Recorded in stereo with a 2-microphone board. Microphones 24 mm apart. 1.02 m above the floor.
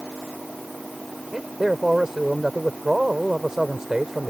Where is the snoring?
No snoring in this recording.